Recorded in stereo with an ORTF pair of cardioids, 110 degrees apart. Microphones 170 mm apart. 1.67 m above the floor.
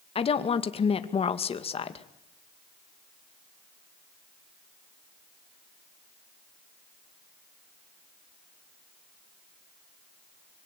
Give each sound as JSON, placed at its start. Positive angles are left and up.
{"t": 0.1, "sound": "a woman speaking", "azimuth_deg": 35, "distance_m": 2.0}